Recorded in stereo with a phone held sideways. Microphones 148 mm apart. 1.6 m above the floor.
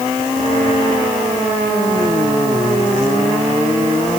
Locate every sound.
Only background noise.